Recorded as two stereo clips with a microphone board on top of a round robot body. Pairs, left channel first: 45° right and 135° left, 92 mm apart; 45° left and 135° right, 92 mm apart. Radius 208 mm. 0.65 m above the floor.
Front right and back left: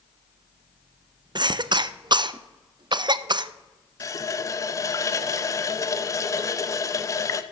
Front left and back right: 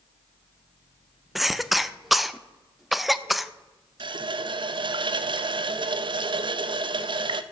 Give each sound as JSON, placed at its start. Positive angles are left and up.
{"t": 1.4, "sound": "a cough", "azimuth_deg": 135, "distance_m": 0.6}
{"t": 4.0, "sound": "a running tap", "azimuth_deg": -100, "distance_m": 0.6}